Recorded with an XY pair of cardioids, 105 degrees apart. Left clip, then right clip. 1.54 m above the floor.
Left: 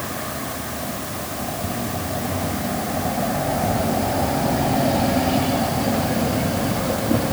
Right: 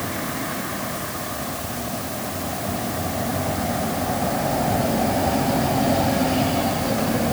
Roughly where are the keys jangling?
I don't hear keys jangling.